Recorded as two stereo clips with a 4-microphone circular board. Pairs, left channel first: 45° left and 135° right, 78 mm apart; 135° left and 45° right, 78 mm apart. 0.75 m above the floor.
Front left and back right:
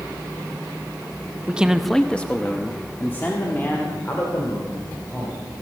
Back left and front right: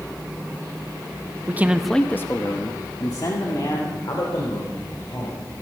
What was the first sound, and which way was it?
A man speaking, 75° right.